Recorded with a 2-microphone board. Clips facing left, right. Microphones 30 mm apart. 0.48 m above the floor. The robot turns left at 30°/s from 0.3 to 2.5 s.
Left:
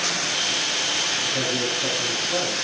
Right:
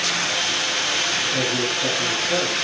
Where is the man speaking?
15° right, 5.5 m; by 2.5 s 55° right, 5.5 m.